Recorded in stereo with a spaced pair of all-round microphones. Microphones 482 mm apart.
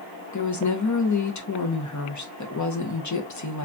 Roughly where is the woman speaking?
Left.